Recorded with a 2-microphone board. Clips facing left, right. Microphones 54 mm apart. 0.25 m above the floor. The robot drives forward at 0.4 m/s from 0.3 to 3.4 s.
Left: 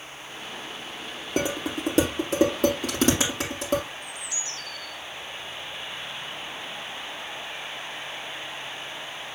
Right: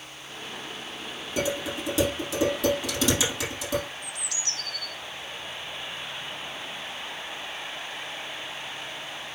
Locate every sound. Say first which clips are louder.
1.4 s dishes clattering: left 1 dB; 50° left (ahead or behind), 4.5 m; by 3.8 s 45° left (ahead or behind), 5 m
4.0 s a bird: even; 75° right (ahead or behind), 1.9 m